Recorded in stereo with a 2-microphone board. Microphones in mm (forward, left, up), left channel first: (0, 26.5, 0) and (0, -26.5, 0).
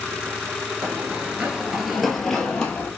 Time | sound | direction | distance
0.8 | running footsteps | 35° right (ahead or behind) | 0.7 m